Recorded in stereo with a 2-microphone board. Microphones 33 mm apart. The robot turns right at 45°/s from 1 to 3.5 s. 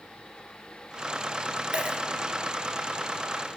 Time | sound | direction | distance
1.7 | a dropped coin | 30° right (ahead or behind) | 1.4 m